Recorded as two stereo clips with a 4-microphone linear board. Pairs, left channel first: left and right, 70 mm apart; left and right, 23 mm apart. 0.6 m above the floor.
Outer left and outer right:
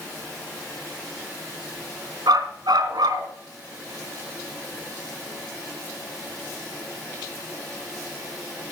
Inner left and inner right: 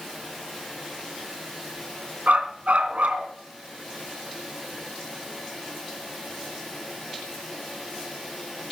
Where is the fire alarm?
No fire alarm in this recording.